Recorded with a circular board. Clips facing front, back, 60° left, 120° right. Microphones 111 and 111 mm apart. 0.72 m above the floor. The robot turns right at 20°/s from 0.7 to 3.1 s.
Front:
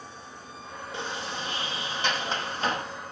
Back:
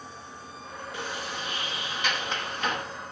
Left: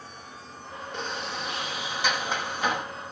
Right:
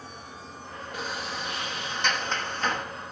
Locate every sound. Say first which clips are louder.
0.9 s a sliding door: front 1 dB, left 1 dB; 40° right, 1.1 m; by 2.9 s straight ahead, 1.1 m